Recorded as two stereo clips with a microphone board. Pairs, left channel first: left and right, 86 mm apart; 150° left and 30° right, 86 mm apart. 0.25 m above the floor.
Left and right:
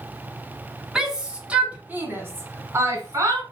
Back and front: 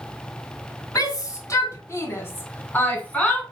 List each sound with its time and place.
0.9 s a shout: 175° right, 2.5 m; by 3.4 s 135° right, 2.5 m